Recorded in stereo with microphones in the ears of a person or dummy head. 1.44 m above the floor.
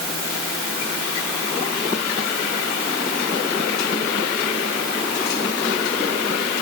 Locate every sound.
Only background noise.